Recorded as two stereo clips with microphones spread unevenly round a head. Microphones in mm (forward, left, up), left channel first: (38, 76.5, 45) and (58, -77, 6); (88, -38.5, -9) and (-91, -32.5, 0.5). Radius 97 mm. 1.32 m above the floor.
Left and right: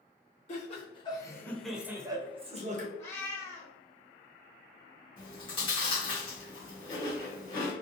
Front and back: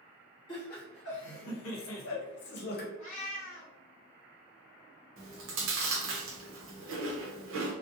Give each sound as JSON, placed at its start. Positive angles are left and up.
{"t": 0.5, "sound": "laughter", "azimuth_deg": 50, "distance_m": 1.0}
{"t": 3.0, "sound": "a cat meowing", "azimuth_deg": 40, "distance_m": 0.7}
{"t": 5.2, "sound": "chewing", "azimuth_deg": 160, "distance_m": 0.7}